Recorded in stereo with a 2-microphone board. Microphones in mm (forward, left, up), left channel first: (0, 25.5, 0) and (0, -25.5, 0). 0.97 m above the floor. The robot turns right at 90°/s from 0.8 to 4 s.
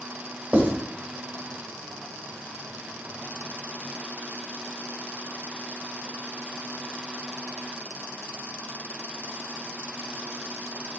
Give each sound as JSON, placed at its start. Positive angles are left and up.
{"t": 0.5, "sound": "writing", "side_deg": -40, "distance_m": 1.6}